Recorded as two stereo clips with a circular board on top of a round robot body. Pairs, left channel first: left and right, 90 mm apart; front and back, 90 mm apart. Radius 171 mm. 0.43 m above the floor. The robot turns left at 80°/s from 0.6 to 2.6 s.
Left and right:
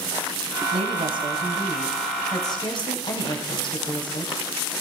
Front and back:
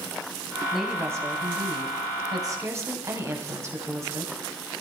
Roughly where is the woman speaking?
Right.